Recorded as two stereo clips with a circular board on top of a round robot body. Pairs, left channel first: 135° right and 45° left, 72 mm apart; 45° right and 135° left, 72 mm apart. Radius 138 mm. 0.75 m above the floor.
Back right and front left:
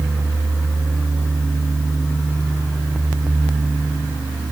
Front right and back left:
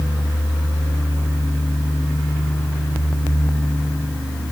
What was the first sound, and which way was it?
Only background noise.